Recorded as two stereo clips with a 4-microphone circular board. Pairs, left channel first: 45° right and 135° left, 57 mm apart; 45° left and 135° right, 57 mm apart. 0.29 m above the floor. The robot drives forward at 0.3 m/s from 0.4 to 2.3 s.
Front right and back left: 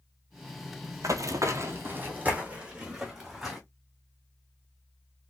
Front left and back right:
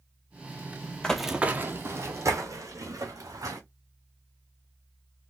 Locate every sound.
1.0 s running footsteps: 120° left, 0.5 m; by 3.6 s 140° right, 1.7 m